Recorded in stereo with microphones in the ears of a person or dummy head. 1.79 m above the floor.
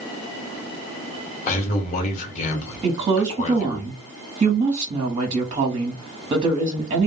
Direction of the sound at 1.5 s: 40° left (ahead or behind).